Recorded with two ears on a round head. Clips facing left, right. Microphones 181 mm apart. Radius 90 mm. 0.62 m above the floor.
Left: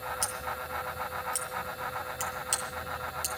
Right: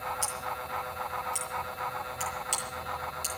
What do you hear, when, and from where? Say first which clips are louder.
0.2 s scissors: even; 15° left (ahead or behind), 7.5 m